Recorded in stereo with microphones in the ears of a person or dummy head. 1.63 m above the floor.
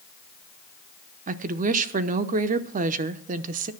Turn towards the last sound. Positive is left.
turn(degrees=-50)  # may be behind; listen again after turning